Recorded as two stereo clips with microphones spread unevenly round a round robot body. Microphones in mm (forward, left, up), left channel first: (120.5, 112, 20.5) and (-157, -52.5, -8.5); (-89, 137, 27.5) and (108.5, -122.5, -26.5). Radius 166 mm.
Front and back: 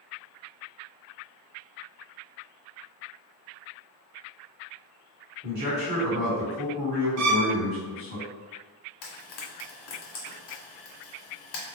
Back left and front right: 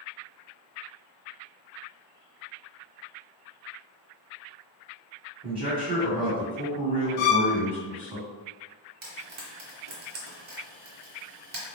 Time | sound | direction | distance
5.4 | a man speaking | 110° right | 1.8 m
7.2 | a violin | 175° left | 0.6 m
9.0 | frying | 10° left | 1.6 m